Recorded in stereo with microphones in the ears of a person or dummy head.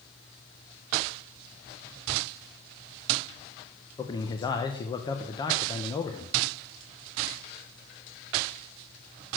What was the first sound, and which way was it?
A man speaking, 25° left (ahead or behind).